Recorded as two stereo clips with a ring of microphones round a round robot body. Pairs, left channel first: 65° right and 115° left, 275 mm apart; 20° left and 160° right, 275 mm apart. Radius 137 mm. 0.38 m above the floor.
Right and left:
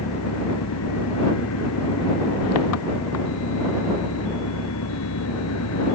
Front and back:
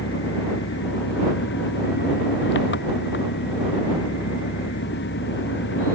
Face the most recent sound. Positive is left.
turn(degrees=-30)